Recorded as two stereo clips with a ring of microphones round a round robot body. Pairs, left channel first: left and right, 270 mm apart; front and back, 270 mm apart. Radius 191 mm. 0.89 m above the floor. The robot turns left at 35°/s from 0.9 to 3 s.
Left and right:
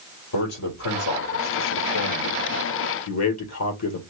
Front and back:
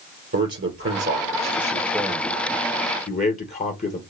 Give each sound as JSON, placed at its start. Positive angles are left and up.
{"t": 0.3, "sound": "a man speaking", "azimuth_deg": 140, "distance_m": 3.0}